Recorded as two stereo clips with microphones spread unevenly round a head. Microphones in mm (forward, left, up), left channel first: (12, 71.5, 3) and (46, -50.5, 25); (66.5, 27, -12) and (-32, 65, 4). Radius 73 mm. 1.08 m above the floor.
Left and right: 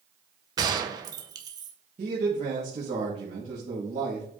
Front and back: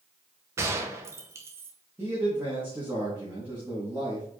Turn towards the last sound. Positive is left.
turn(degrees=-120)